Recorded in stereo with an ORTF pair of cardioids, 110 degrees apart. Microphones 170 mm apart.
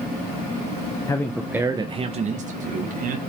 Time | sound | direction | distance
1.1 | a man speaking | 20° left | 1.0 m